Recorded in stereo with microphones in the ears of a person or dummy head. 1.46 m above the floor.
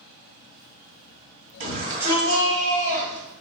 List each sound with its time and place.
1.6 s a shout: 35° right (ahead or behind), 1.5 m; by 3.3 s 15° left (ahead or behind), 3 m